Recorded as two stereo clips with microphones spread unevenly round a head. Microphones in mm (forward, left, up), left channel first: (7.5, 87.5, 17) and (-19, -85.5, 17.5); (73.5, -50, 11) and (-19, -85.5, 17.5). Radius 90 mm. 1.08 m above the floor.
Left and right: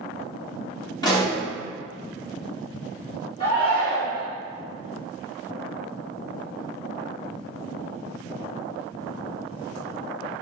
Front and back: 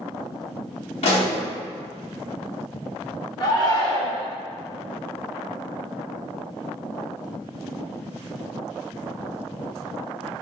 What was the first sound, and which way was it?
A pop, 10° left.